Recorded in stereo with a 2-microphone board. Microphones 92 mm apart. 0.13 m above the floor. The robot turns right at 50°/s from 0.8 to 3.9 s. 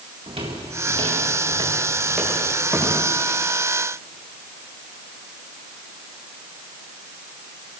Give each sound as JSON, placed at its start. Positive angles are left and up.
{"t": 0.3, "sound": "footsteps", "side_deg": -90, "distance_m": 6.0}